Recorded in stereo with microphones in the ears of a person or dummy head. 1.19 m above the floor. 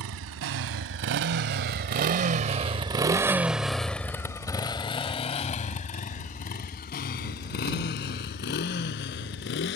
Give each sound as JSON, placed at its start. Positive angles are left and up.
{"t": 0.0, "sound": "a motorcycle", "side_deg": -70}